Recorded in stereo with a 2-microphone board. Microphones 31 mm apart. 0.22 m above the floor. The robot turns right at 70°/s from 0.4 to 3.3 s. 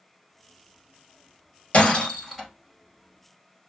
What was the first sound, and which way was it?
Breaking glass, 50° left (ahead or behind).